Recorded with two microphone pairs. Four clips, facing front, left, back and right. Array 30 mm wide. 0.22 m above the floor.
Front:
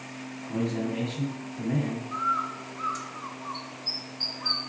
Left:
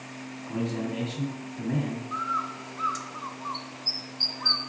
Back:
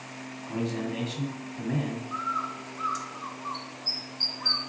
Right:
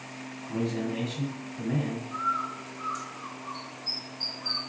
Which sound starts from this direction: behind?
A man speaking, at 0.5 s.